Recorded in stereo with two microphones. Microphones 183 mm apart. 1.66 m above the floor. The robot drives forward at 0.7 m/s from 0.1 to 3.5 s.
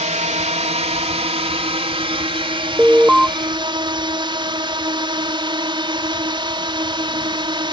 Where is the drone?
40° right (ahead or behind); by 7.7 s 25° right (ahead or behind).